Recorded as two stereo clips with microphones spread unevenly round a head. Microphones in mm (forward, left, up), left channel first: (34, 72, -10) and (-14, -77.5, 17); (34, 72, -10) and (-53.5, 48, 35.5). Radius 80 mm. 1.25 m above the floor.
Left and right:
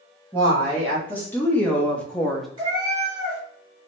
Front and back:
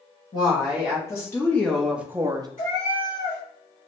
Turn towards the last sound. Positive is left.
turn(degrees=-55)